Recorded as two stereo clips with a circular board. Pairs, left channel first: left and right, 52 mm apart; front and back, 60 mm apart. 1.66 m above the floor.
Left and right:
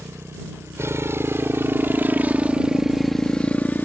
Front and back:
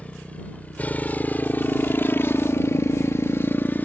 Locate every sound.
0.0 s a motorcycle: 65° right; by 3.9 s 50° left